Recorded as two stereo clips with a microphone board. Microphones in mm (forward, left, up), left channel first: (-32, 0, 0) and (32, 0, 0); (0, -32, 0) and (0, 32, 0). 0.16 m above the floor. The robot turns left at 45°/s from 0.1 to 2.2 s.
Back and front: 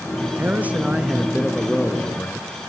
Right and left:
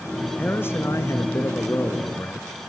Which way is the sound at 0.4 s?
45° right.